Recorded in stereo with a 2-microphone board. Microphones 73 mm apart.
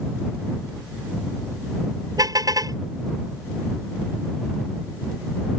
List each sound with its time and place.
2.2 s a car horn: 55° right (ahead or behind)